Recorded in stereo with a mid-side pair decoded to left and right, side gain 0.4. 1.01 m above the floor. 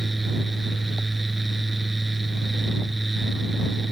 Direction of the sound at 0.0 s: 10° right.